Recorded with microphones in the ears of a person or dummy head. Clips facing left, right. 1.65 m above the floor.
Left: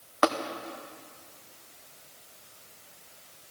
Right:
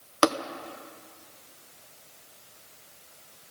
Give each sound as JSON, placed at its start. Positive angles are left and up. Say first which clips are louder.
{"t": 0.2, "sound": "tapping", "louder": "right 2 dB", "side_deg": -55, "distance_m": 0.8}